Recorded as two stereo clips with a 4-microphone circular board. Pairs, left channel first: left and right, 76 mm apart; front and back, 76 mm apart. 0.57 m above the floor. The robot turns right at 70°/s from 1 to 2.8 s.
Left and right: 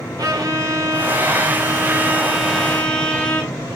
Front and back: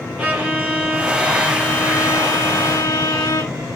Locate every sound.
0.2 s a violin: 110° right, 1.1 m; by 3.5 s 20° left, 1.1 m